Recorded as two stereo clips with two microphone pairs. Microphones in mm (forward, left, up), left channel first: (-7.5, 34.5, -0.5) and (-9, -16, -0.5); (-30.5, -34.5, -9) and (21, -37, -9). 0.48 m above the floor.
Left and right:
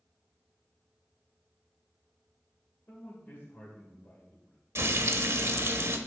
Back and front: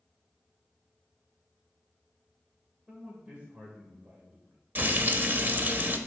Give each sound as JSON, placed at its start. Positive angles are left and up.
{"t": 2.9, "sound": "a man speaking", "azimuth_deg": 55, "distance_m": 1.9}
{"t": 4.8, "sound": "frying", "azimuth_deg": -60, "distance_m": 0.7}